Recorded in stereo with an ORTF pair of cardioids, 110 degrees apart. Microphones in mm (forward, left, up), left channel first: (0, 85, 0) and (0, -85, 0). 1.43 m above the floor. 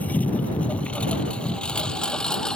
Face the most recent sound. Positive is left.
turn(degrees=5)